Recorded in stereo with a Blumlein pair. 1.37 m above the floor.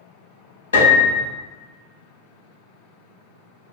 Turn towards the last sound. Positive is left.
turn(degrees=70)